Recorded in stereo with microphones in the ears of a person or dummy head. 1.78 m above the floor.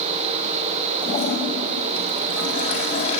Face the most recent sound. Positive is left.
turn(degrees=35)  # may be behind; listen again after turning